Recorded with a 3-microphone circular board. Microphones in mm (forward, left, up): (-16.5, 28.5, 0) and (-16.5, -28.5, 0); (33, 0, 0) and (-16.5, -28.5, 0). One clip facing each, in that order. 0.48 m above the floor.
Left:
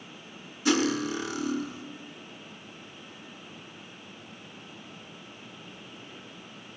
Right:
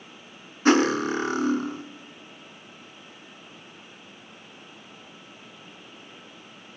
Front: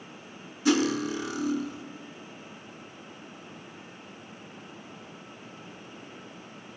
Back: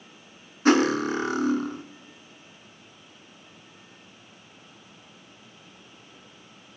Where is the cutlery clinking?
125° right, 0.5 m.